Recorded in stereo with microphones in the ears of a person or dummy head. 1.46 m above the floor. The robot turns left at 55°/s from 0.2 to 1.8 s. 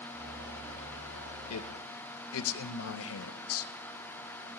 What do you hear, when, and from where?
1.5 s a man speaking: 85° left, 0.7 m; by 3.7 s 80° left, 0.7 m